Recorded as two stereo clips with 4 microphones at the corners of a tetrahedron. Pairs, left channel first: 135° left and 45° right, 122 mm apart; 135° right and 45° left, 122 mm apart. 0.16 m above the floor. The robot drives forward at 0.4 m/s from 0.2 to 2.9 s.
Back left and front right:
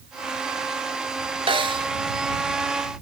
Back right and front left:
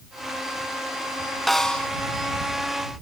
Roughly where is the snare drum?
Ahead right.